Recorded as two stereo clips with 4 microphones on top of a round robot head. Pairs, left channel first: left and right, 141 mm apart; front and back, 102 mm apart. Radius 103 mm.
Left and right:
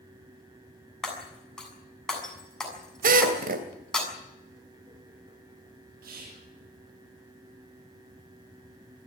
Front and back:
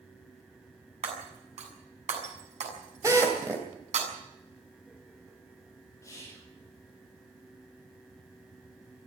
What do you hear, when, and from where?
1.0 s breaking glass: 175° left, 7 m
3.0 s a drill: 105° right, 3 m
6.0 s whispering: 70° right, 3.5 m